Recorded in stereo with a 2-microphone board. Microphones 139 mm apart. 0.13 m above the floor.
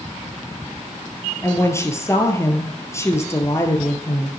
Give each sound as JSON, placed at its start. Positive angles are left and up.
{"t": 1.4, "sound": "a woman speaking", "side_deg": 20, "distance_m": 2.0}